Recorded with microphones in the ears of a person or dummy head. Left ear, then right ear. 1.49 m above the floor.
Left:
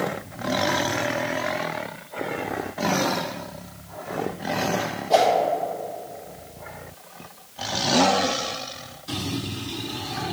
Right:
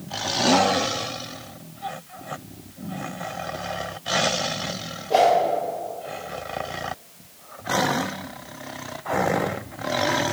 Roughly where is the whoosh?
Left.